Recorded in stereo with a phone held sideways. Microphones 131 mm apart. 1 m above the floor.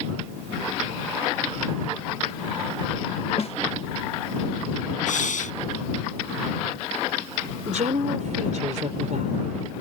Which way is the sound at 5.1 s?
80° left.